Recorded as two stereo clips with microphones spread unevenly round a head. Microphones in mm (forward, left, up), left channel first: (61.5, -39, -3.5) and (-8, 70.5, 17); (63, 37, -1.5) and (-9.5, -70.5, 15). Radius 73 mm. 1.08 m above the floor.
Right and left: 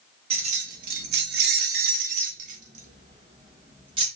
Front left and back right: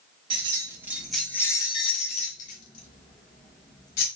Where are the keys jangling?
175° left, 0.9 m; by 4.1 s 75° left, 1.8 m.